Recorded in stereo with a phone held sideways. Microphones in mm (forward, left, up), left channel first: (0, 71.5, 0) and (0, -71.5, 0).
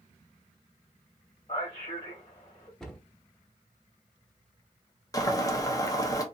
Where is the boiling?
25° left (ahead or behind), 0.7 m.